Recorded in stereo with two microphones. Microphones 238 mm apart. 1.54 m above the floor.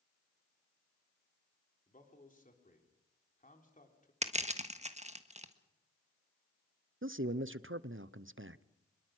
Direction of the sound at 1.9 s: 35° left (ahead or behind).